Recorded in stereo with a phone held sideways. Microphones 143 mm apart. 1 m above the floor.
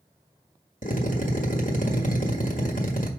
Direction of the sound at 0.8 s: 65° left (ahead or behind).